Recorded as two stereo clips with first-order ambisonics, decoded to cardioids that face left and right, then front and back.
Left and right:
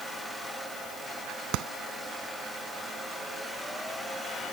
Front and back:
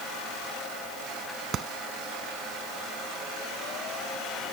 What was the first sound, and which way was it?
A clap, 120° right.